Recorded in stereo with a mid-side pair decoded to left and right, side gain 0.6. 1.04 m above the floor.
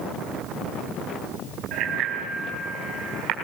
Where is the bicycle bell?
65° right, 5 m; by 3.4 s 75° right, 6 m.